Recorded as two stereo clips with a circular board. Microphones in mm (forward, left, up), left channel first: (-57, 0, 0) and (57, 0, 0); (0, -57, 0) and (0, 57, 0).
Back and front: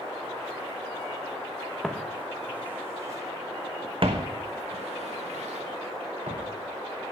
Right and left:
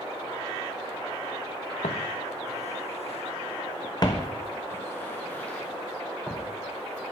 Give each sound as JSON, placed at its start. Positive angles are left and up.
{"t": 1.8, "sound": "footsteps", "azimuth_deg": -95, "distance_m": 1.3}